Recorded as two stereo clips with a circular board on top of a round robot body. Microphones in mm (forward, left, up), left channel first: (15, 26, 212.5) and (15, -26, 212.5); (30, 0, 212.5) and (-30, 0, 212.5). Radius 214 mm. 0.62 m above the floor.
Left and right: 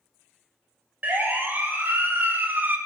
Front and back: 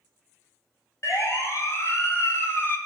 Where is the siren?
35° right, 4 m; by 2.8 s 40° right, 2.5 m.